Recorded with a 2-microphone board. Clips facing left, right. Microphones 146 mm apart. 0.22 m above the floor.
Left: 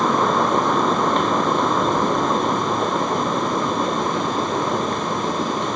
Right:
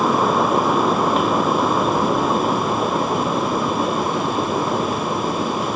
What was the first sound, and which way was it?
Only background noise.